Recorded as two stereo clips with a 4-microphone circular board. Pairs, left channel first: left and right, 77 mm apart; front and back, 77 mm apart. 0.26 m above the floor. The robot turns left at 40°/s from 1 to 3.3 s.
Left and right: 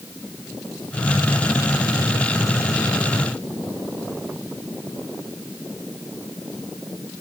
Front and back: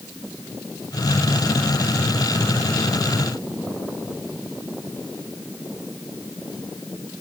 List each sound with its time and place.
Only background noise.